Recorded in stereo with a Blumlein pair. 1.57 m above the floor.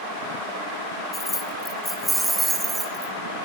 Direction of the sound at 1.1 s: 15° left.